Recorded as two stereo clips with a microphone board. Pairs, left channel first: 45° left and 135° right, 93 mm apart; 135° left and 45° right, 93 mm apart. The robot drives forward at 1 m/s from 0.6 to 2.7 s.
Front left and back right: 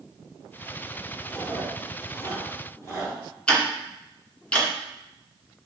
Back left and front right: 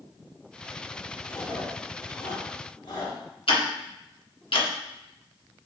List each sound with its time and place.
1.3 s chewing: 80° left, 3 m; by 3.2 s 105° left, 3 m
3.5 s ticking: 125° left, 1.5 m